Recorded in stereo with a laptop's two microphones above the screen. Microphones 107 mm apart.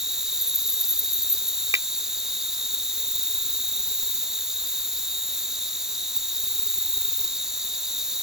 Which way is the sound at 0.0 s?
5° right (ahead or behind).